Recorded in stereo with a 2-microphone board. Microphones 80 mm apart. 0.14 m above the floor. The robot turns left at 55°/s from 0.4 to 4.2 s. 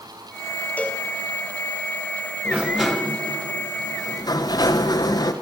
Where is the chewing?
No chewing in this recording.